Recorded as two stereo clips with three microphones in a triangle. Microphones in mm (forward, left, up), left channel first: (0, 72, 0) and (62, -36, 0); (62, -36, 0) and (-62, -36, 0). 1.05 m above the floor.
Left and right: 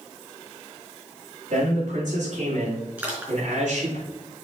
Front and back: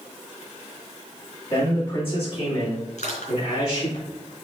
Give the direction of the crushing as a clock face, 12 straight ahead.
11 o'clock.